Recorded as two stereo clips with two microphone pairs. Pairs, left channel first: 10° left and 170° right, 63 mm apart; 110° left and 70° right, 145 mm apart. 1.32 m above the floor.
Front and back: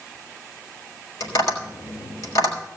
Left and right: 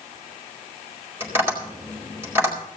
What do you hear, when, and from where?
1.2 s tapping: 5° left, 4.5 m